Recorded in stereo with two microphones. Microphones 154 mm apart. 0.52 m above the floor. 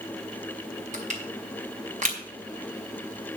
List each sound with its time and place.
0.9 s crushing: 50° right (ahead or behind), 2.5 m